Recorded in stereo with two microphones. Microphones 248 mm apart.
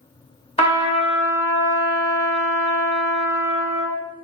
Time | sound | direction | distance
0.6 | a trumpet | 25° left (ahead or behind) | 1.2 m